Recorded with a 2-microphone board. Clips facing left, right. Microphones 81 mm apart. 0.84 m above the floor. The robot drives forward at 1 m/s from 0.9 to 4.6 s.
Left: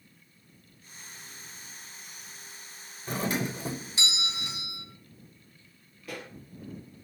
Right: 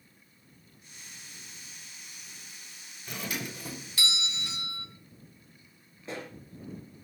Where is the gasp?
No gasp in this recording.